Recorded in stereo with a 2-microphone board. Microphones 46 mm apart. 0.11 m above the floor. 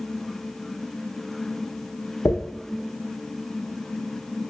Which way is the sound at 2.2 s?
70° left (ahead or behind).